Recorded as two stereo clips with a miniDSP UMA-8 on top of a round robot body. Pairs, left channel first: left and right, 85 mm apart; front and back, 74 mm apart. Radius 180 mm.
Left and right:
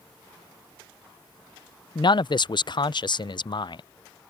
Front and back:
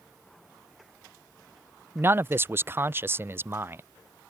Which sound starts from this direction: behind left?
A man speaking, at 1.9 s.